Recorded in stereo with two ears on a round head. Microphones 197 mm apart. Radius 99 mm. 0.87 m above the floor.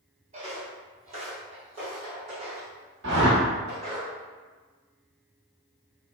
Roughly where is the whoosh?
Right.